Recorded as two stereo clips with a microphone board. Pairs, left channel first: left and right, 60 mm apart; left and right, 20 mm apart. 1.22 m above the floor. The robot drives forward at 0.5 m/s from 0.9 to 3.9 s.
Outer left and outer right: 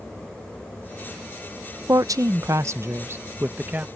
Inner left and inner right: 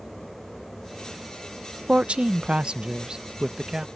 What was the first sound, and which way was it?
A woman speaking, 85° right.